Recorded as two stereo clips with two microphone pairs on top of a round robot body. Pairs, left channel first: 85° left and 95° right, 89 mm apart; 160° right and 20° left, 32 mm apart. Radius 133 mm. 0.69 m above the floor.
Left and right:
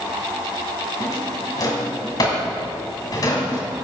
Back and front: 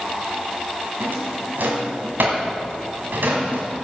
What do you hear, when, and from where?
1.0 s a drawer: 40° left, 1.9 m